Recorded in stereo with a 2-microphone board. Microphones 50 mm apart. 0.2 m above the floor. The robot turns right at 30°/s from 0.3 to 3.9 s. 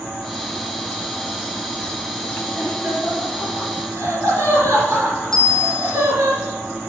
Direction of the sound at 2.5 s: 40° right (ahead or behind).